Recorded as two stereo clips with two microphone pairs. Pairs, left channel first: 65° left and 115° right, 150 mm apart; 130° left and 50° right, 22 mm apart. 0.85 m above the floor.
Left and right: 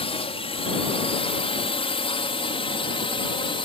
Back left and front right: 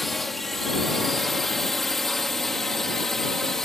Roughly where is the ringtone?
No ringtone in this recording.